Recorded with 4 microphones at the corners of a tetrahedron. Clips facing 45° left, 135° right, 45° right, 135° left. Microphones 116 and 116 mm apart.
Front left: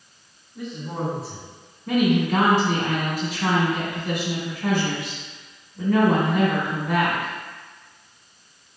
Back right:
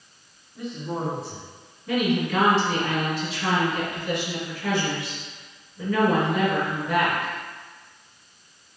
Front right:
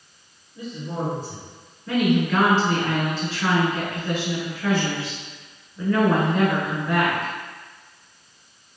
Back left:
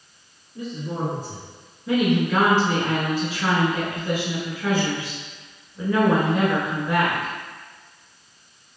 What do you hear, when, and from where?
0.6 s a woman speaking: 130° left, 1.9 m
1.9 s a woman speaking: 65° left, 2.0 m